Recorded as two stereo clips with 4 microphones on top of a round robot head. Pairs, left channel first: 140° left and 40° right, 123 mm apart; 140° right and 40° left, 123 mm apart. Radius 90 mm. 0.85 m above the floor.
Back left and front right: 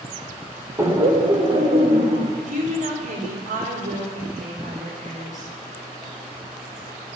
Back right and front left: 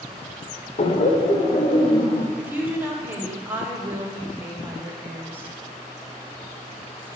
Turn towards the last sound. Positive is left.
turn(degrees=-35)